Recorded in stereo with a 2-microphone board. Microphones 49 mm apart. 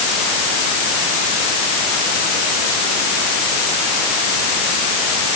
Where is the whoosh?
No whoosh in this recording.